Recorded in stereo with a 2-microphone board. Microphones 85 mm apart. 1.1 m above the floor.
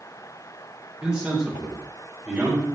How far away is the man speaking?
About 5 m.